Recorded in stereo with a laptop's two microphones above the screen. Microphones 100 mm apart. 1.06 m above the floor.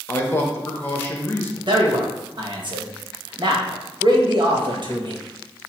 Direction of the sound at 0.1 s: 25° left (ahead or behind).